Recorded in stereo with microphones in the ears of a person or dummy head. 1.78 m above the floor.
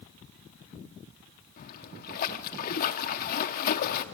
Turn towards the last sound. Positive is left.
turn(degrees=45)  # may be behind; listen again after turning